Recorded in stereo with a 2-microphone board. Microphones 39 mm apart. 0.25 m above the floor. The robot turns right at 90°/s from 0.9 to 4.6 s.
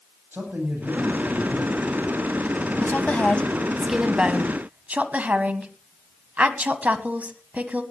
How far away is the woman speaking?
About 1.5 m.